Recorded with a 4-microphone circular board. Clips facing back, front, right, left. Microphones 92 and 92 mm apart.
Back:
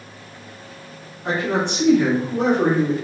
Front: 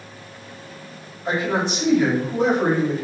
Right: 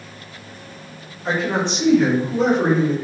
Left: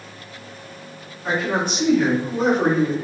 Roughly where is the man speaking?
Behind.